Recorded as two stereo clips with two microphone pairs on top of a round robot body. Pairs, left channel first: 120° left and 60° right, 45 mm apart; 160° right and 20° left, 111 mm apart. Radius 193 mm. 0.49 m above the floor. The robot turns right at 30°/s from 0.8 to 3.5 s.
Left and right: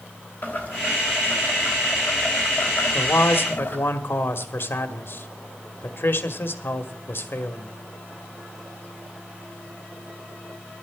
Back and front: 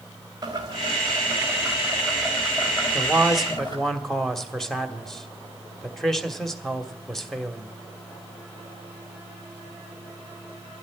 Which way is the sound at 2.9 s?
95° left.